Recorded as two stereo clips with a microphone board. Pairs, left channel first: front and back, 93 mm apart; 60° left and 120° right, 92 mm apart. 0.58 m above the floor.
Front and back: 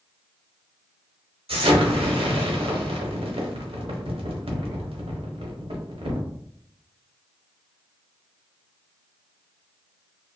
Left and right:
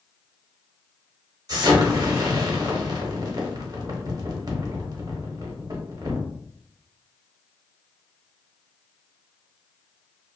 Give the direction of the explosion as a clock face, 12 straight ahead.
6 o'clock.